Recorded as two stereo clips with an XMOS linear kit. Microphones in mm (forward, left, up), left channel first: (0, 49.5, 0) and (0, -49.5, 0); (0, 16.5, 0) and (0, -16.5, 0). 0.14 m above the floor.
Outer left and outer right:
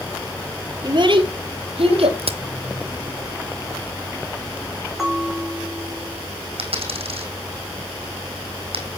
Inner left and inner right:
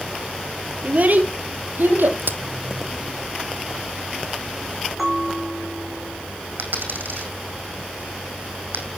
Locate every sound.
0.8 s a child speaking: 45° right (ahead or behind), 2 m; by 2.2 s 70° right (ahead or behind), 3.5 m
2.2 s a crack: 85° right, 1.0 m
5.0 s a bell: 5° right (ahead or behind), 5.5 m
6.6 s a dropped coin: 75° right (ahead or behind), 4 m